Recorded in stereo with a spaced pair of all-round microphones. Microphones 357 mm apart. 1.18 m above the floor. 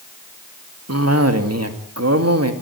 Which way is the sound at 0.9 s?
45° right (ahead or behind).